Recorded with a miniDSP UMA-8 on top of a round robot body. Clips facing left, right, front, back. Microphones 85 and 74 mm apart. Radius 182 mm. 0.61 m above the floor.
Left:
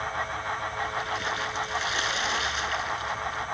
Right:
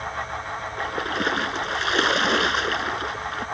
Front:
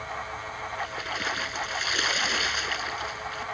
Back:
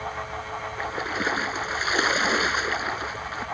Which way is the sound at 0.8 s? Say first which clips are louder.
Right 4 dB, back 5 dB; 125° right.